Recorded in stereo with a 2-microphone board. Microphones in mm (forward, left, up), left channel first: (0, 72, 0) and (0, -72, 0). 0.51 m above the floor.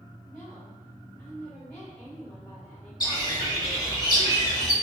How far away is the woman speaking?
About 2.0 m.